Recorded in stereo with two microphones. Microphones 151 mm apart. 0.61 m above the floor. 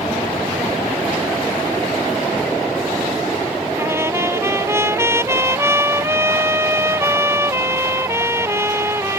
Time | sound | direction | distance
3.8 | a trumpet | 15° right (ahead or behind) | ?